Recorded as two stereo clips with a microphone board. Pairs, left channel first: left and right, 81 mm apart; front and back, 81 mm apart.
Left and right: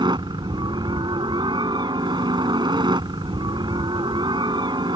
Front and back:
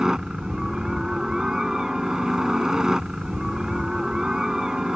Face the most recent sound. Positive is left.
turn(degrees=-100)